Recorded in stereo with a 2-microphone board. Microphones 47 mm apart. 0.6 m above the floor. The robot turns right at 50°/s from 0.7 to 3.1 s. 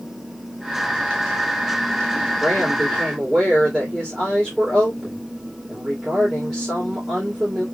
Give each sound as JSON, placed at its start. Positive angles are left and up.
{"t": 2.4, "sound": "a woman speaking", "azimuth_deg": 155, "distance_m": 2.5}